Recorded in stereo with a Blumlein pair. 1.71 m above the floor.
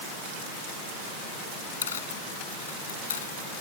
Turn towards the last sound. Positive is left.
turn(degrees=65)